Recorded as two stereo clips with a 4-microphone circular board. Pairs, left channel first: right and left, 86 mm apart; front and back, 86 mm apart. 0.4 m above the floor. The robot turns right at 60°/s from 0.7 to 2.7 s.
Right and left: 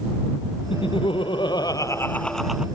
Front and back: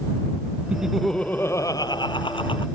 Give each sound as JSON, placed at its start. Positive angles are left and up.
{"t": 0.7, "sound": "laughter", "azimuth_deg": -105}